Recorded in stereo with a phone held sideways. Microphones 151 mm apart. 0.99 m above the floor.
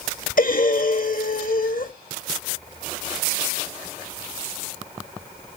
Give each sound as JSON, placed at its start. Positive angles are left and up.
{"t": 0.4, "sound": "breathing", "side_deg": 65, "distance_m": 0.8}